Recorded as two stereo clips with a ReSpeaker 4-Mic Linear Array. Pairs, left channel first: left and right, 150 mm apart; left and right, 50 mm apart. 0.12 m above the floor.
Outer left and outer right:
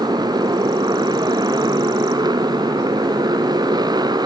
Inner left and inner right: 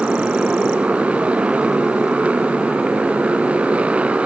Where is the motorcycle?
25° right (ahead or behind).